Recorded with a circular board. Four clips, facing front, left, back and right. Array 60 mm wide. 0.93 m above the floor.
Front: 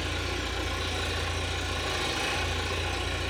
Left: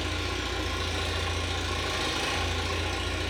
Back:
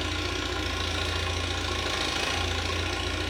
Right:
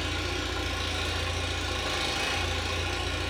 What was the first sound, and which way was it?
An engine running, 175° right.